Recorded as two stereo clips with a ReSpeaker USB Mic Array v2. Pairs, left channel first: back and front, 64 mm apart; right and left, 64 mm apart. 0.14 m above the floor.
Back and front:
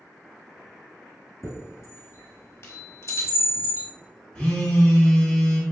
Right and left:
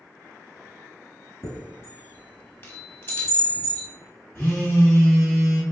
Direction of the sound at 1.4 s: 135° right.